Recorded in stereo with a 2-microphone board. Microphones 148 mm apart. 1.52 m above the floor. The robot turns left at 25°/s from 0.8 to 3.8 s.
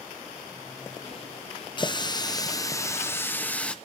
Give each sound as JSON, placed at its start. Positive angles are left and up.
{"t": 1.8, "sound": "a running tap", "azimuth_deg": 60, "distance_m": 0.6}